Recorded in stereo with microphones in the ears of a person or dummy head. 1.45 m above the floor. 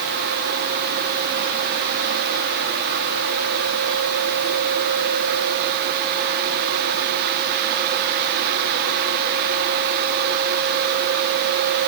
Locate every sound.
Only background noise.